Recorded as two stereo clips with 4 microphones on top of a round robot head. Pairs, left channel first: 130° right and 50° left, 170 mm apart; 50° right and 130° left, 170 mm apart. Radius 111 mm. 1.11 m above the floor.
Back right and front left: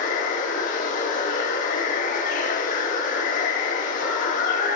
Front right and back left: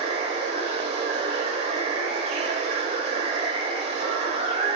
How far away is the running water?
About 0.7 m.